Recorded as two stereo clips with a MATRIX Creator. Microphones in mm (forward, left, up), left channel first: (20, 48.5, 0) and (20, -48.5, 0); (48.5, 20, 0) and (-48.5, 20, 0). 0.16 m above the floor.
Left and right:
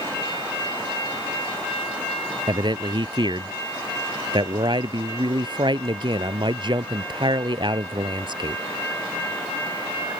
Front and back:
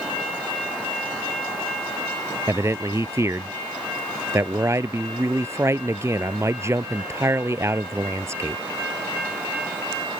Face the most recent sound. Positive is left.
turn(degrees=-120)